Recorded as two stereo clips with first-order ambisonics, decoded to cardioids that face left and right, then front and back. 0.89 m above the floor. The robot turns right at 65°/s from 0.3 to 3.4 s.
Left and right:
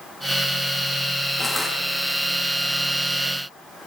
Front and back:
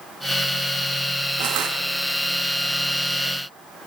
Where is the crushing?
165° left, 7.5 m; by 1.8 s 170° right, 7.5 m.